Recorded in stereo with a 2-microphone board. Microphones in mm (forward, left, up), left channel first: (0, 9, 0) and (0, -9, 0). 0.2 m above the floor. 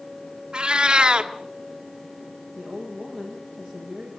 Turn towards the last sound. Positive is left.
turn(degrees=10)  # may be behind; listen again after turning